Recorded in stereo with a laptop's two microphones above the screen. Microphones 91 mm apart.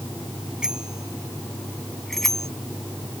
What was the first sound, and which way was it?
A bicycle bell, 10° right (ahead or behind).